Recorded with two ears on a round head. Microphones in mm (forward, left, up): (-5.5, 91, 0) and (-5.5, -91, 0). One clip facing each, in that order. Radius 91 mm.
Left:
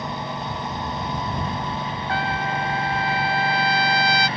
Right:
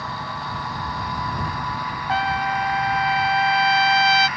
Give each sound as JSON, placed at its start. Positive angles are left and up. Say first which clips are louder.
{"t": 0.0, "sound": "a lawn mower", "louder": "left 3 dB", "side_deg": 20}
{"t": 2.1, "sound": "a trumpet", "louder": "right 3 dB", "side_deg": -20}